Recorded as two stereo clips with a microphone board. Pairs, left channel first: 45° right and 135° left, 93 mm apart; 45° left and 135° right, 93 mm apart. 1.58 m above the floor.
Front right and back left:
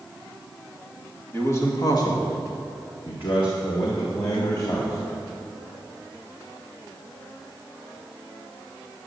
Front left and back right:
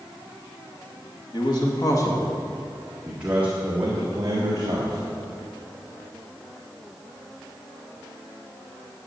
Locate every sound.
1.3 s a man speaking: 15° left, 2 m; by 5.0 s 90° right, 3 m